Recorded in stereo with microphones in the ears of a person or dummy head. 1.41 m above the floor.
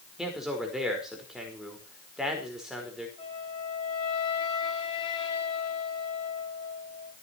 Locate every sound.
0.2 s a man speaking: 5° right (ahead or behind), 5 m
3.2 s a flute: 30° left (ahead or behind), 4.5 m